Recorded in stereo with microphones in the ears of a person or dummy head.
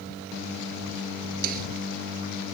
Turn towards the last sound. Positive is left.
turn(degrees=-50)  # may be behind; listen again after turning